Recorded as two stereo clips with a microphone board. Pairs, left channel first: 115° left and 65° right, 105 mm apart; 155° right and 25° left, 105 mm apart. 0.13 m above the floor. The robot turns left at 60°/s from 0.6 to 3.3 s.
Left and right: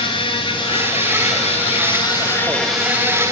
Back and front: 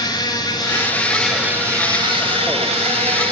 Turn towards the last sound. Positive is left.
turn(degrees=-10)